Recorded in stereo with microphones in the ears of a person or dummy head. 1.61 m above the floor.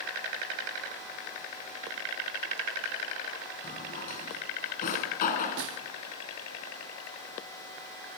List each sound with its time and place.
3.6 s a drawer: 55° left (ahead or behind), 4 m
5.6 s a snare drum: 55° right (ahead or behind), 1.5 m